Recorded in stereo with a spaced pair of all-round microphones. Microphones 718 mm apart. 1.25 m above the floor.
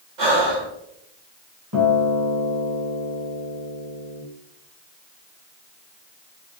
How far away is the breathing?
About 1.2 m.